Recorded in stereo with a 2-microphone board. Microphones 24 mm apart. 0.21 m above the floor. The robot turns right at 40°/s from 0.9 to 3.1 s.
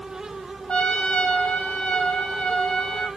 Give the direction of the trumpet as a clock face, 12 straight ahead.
10 o'clock.